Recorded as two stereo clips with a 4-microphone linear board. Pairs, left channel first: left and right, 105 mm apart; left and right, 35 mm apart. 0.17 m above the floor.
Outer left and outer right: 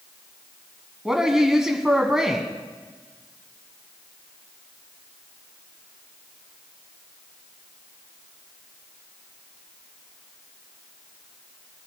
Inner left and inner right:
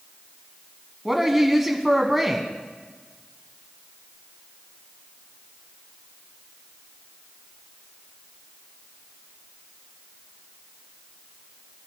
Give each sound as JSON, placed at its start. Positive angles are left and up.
{"t": 1.1, "sound": "a woman speaking", "side_deg": -5, "distance_m": 1.2}